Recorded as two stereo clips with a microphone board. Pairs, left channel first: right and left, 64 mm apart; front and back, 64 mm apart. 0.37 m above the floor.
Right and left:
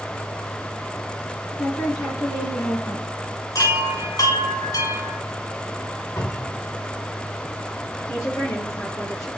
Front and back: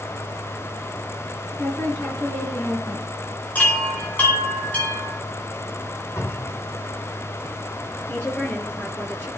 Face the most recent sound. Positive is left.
turn(degrees=-55)